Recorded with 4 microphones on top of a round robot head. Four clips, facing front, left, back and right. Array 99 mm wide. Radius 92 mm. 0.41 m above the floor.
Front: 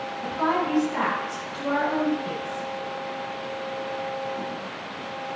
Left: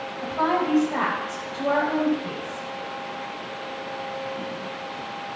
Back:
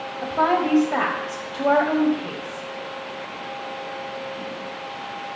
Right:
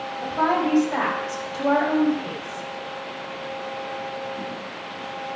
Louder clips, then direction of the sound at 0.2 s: Right 1 dB, back 4 dB; 165° right.